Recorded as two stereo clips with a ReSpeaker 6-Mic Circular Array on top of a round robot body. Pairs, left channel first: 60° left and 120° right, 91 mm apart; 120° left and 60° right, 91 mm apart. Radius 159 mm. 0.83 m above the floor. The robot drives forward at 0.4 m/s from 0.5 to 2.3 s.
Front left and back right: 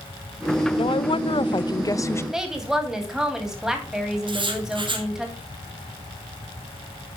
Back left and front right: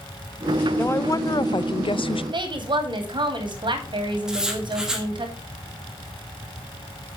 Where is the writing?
145° right, 2 m.